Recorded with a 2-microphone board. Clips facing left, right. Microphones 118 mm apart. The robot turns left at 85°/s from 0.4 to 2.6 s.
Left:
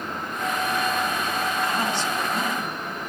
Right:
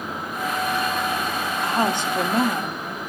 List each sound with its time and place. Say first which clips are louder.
1.6 s a woman speaking: right 3 dB; 25° right, 2.0 m; by 3.1 s 110° right, 2.0 m